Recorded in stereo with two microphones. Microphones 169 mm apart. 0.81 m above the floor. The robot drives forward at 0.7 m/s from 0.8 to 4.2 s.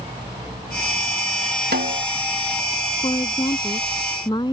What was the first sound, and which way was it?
A snare drum, 65° right (ahead or behind).